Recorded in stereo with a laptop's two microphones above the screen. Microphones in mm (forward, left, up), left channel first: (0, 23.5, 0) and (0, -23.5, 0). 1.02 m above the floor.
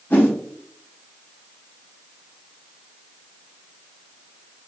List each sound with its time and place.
0.1 s a whoosh: 45° left (ahead or behind), 0.9 m